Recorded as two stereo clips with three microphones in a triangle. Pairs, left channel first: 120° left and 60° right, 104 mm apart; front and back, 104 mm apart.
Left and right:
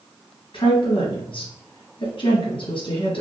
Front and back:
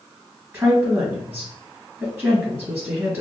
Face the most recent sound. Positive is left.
turn(degrees=115)